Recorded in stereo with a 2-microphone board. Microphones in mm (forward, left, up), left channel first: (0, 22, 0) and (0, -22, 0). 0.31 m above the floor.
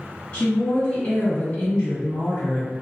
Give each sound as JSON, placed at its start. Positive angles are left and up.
{"t": 0.3, "sound": "a woman speaking", "side_deg": 20, "distance_m": 1.8}